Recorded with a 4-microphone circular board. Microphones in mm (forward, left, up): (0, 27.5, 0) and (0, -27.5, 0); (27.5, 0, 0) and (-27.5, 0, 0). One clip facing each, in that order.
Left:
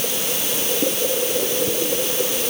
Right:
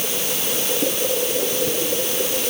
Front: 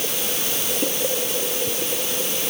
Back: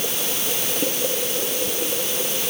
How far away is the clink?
No clink in this recording.